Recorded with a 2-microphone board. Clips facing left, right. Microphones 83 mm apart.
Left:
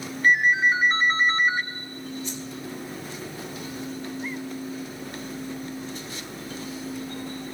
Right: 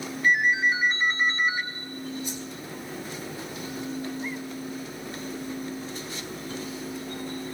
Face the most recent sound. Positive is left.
turn(degrees=-15)  # may be behind; listen again after turning